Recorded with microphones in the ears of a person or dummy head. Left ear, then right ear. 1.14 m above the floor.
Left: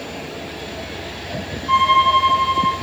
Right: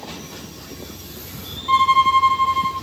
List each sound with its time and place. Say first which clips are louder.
1.7 s a violin: left 1 dB; 20° right (ahead or behind), 1.9 m